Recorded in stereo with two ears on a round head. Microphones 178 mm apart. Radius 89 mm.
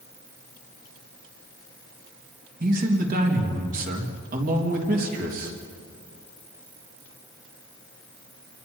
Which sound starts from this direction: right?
A man speaking, at 2.6 s.